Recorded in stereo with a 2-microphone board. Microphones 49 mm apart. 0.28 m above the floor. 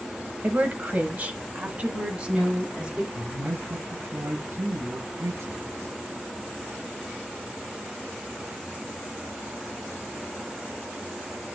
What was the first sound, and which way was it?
A woman speaking, 30° right (ahead or behind).